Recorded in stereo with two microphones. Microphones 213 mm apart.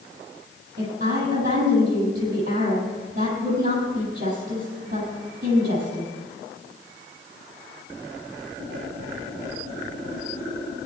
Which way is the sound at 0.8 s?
40° right (ahead or behind).